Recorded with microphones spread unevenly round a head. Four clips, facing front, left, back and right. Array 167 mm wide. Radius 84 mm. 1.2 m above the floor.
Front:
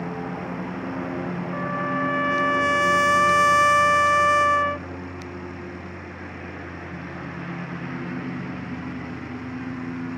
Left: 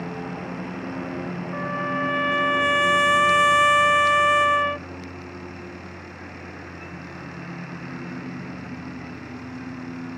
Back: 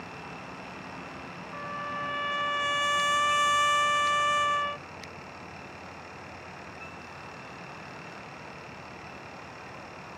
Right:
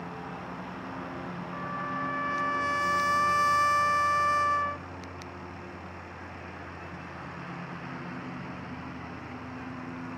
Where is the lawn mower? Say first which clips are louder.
Left 7 dB, front 12 dB; 35° left; by 10.2 s 20° left.